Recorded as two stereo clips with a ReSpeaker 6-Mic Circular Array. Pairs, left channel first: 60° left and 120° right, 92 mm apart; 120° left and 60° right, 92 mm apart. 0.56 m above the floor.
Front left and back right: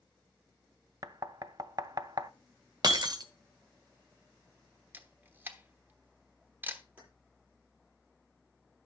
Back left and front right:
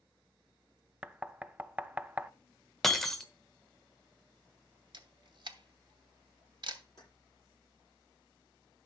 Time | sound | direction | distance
1.0 | knocking | 125° right | 0.5 m
2.8 | breaking glass | 155° right | 1.1 m
4.9 | a camera shutter | 60° right | 1.0 m
7.0 | keys jangling | 165° left | 9 m